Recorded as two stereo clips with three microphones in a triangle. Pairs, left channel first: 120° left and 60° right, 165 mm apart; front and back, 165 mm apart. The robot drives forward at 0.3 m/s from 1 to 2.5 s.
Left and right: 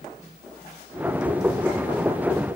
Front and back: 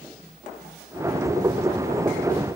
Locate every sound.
Only background noise.